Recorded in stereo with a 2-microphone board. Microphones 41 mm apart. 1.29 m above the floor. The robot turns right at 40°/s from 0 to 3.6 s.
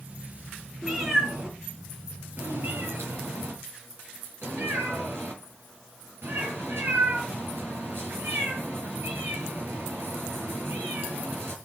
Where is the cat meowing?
5° right (ahead or behind), 5 m; by 11.6 s 65° right (ahead or behind), 5 m.